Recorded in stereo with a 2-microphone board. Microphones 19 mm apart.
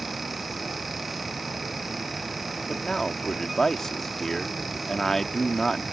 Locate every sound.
2.7 s a man speaking: 20° left (ahead or behind)